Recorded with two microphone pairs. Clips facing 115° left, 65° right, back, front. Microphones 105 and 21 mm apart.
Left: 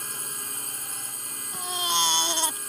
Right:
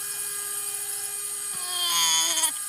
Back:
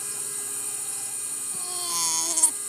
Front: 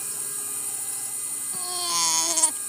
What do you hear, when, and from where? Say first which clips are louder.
0.0 s a drone: left 3 dB, even; 95° left
1.5 s a baby crying: left 4 dB, front 4 dB; 65° left